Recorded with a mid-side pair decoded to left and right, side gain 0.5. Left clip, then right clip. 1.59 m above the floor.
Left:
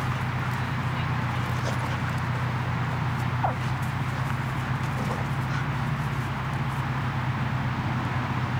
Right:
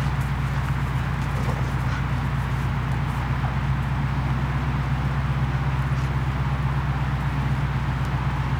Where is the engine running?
70° right, 0.8 m.